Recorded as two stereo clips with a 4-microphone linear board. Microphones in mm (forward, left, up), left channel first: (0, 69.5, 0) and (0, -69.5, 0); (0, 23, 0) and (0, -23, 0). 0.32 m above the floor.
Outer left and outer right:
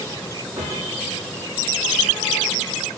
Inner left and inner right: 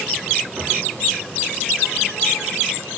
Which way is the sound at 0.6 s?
25° right (ahead or behind).